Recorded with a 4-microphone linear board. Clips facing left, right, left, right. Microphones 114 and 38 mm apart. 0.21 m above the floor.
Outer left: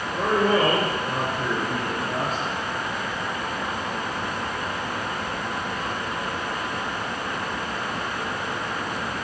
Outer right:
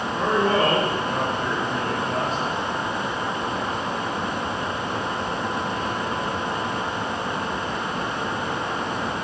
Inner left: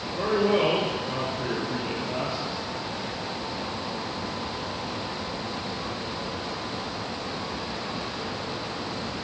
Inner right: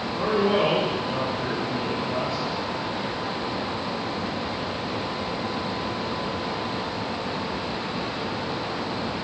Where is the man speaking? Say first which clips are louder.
Even, inner right 1 dB; 40° left (ahead or behind), 4 m.